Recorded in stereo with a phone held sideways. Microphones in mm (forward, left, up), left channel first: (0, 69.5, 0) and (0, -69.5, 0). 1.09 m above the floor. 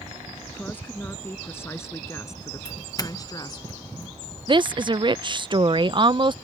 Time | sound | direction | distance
0.5 | a woman speaking | 10° left (ahead or behind) | ?
2.6 | a doorbell | 30° left (ahead or behind) | ?
4.5 | a woman speaking | 35° right (ahead or behind) | ?